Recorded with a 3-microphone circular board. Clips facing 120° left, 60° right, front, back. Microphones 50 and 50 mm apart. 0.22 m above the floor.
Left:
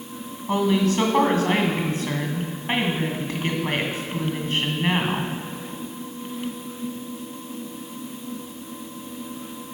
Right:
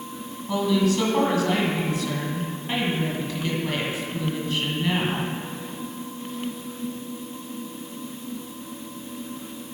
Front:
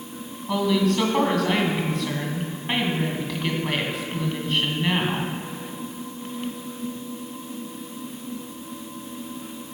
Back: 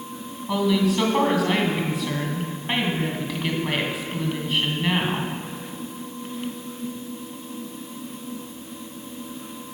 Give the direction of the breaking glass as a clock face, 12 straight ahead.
I don't hear breaking glass.